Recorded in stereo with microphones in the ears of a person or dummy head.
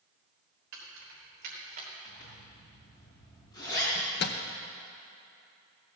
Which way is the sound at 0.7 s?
70° right (ahead or behind).